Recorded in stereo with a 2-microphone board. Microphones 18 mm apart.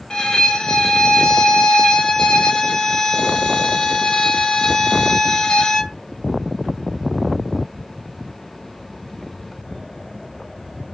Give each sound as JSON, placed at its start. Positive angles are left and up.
{"t": 0.1, "sound": "a violin", "side_deg": 45, "distance_m": 0.8}